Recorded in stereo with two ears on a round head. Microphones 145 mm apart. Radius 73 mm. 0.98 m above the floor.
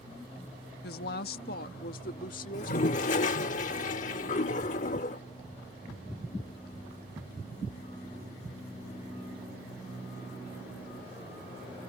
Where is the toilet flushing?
50° left (ahead or behind).